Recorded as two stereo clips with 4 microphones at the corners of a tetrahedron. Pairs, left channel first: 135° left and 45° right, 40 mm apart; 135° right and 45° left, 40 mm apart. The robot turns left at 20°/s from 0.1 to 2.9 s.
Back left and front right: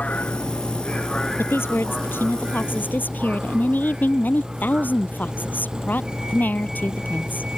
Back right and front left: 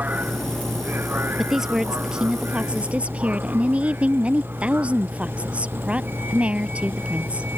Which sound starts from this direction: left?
A vehicle, at 0.0 s.